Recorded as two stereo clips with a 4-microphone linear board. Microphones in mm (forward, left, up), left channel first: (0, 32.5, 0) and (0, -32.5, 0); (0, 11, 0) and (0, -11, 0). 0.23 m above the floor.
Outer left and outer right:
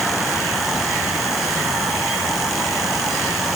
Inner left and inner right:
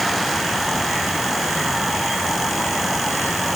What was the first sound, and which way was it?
Only background noise.